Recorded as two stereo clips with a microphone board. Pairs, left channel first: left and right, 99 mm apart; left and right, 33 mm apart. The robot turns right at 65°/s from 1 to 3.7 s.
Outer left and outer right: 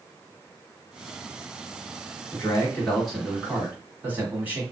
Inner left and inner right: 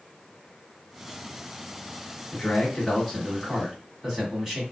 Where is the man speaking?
125° left, 1.4 m; by 4.6 s 145° right, 1.4 m.